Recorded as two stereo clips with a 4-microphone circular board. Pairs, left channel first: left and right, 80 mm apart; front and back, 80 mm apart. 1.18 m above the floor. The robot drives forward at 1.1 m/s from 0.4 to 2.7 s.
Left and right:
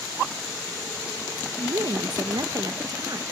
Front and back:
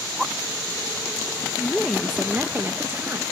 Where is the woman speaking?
70° right; by 3.2 s 125° right.